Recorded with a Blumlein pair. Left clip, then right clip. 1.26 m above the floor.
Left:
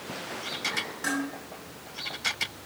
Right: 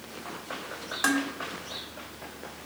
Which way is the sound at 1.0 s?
60° right.